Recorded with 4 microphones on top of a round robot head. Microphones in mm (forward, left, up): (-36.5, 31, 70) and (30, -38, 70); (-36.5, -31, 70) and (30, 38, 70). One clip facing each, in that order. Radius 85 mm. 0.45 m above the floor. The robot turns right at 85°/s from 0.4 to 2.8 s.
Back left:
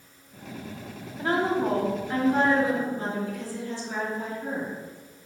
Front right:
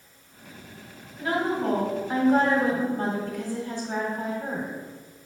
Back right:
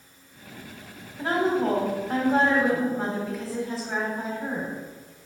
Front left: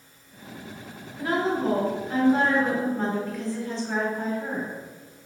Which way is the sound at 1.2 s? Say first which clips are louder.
Back left 1 dB, back right 1 dB; 175° left.